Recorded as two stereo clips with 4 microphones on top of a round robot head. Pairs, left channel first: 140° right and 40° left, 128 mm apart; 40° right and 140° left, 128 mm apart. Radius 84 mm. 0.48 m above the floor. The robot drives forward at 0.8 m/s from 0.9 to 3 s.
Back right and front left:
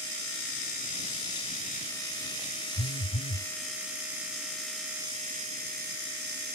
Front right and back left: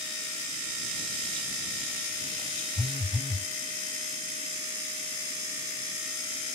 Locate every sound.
2.8 s a phone buzzing: 135° right